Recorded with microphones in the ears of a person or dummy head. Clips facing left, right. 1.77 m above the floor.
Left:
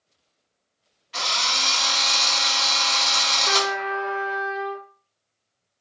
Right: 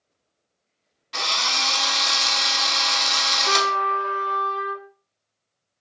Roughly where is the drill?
Right.